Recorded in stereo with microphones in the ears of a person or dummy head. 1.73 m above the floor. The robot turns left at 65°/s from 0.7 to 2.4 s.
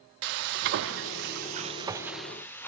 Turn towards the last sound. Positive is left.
turn(degrees=170)